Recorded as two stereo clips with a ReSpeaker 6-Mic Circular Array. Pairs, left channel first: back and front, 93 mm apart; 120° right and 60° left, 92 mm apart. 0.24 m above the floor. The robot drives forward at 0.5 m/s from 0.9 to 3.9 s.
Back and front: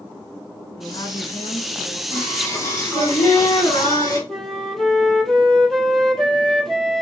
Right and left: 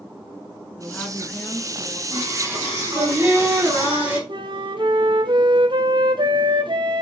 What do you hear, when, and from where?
0.8 s a woman speaking: 175° left, 2.5 m
2.1 s singing: 120° left, 3.5 m; by 4.2 s 130° left, 4 m
4.3 s a flute: 95° left, 1.4 m